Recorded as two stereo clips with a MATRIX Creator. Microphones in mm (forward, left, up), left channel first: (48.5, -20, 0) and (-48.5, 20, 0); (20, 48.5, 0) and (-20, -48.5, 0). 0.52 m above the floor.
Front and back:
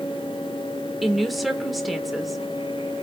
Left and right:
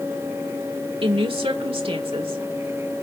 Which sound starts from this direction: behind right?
A woman speaking, at 1.0 s.